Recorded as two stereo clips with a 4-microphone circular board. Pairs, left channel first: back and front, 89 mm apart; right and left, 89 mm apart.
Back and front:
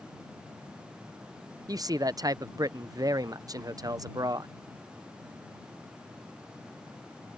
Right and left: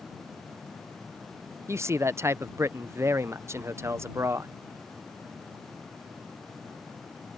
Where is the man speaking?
35° left.